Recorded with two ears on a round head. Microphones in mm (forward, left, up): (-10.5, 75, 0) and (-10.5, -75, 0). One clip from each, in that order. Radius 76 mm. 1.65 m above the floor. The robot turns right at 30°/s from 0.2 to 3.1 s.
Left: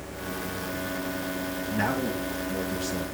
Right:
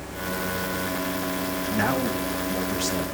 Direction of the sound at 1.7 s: 165° right.